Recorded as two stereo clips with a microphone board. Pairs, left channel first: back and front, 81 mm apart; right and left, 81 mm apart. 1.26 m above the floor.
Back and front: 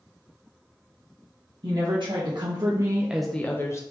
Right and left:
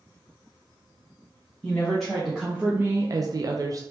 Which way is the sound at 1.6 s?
5° right.